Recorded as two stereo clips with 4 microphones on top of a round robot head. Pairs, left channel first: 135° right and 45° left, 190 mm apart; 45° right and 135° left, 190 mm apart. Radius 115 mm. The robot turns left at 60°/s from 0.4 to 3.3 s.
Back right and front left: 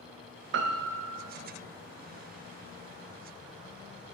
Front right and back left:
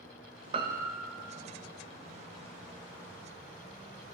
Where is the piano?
70° left, 0.5 m; by 1.2 s 25° left, 0.5 m.